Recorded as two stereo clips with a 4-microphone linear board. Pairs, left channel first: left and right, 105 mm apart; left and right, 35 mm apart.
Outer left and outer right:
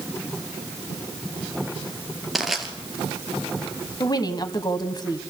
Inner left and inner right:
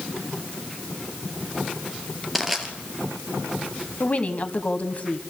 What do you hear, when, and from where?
2.4 s crushing: centre (ahead or behind), 2.5 m
4.0 s a woman speaking: 40° left (ahead or behind), 1.5 m